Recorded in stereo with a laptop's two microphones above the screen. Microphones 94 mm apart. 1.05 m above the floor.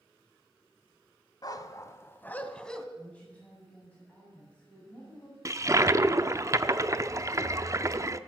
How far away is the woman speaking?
About 8 m.